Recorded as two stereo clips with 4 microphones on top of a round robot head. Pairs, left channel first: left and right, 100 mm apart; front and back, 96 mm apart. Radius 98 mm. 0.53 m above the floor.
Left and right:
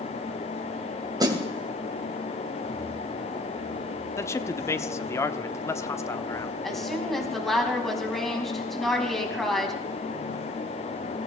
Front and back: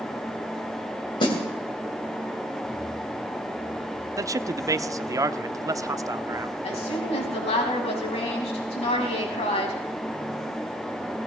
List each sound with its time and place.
1.2 s a snare drum: 40° right, 3 m
4.2 s a man speaking: 140° left, 1.0 m
6.6 s a woman speaking: straight ahead, 5.5 m